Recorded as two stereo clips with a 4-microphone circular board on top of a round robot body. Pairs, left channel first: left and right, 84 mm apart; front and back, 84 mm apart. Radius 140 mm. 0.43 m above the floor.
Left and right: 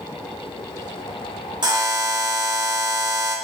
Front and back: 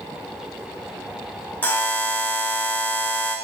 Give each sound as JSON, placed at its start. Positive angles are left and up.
{"t": 1.6, "sound": "a buzzer", "azimuth_deg": -70, "distance_m": 2.5}